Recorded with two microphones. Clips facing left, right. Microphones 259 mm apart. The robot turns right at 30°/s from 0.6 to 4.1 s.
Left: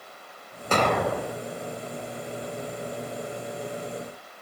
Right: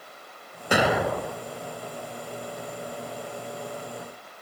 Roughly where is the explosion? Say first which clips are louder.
Right 1 dB; centre.